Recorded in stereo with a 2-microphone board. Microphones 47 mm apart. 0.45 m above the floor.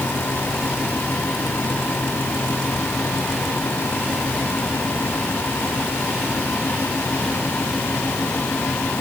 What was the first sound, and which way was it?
Only background noise.